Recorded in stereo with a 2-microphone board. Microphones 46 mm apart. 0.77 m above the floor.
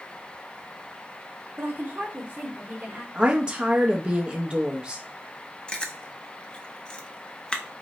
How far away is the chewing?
About 0.6 m.